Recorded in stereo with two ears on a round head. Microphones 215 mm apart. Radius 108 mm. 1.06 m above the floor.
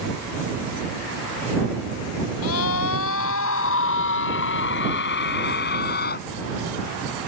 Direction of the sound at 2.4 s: 70° left (ahead or behind).